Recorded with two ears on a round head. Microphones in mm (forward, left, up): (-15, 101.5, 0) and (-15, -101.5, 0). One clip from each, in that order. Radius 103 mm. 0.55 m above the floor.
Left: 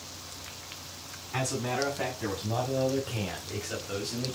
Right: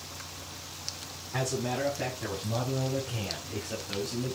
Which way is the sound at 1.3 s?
55° left (ahead or behind).